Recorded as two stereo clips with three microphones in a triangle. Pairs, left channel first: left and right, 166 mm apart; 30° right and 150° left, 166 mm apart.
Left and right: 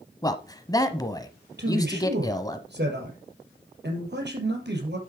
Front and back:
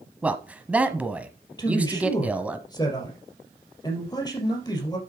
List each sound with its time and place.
0.2 s a man speaking: 80° left, 1.0 m
1.6 s a man speaking: 95° right, 4 m